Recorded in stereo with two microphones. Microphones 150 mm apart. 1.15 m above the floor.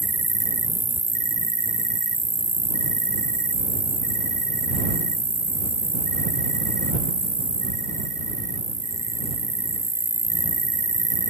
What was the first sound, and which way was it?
An insect, 20° left (ahead or behind).